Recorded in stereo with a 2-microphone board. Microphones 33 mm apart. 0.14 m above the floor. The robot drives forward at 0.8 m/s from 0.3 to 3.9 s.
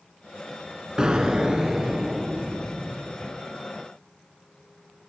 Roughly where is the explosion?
Right.